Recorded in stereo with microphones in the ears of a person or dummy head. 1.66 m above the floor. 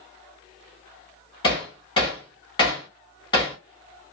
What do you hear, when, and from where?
1.4 s hammering: 25° left (ahead or behind), 2.5 m